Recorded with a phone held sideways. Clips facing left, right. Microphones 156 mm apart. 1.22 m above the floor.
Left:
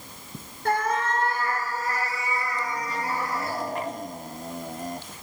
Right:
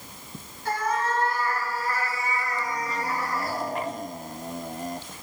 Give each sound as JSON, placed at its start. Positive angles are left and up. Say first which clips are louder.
{"t": 0.7, "sound": "a cat meowing", "louder": "left 2 dB", "side_deg": 65, "distance_m": 2.5}